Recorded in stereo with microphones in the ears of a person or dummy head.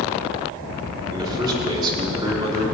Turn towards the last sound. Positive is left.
turn(degrees=-20)  # may be behind; listen again after turning